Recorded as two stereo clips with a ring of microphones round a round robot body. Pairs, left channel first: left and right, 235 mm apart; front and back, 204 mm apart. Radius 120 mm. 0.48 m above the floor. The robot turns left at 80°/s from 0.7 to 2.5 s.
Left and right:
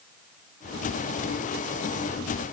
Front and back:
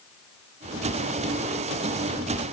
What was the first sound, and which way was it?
Only background noise.